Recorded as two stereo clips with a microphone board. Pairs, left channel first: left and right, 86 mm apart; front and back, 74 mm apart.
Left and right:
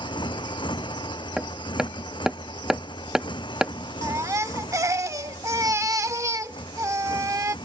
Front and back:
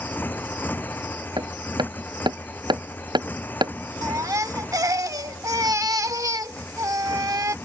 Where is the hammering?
175° right.